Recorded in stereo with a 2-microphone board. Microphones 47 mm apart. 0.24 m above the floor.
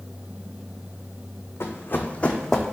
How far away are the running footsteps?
About 0.6 m.